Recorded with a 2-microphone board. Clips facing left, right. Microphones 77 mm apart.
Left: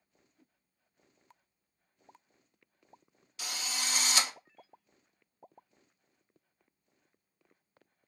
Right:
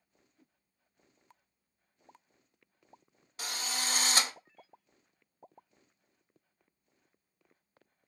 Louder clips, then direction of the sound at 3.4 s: Right 1 dB; 40° right (ahead or behind).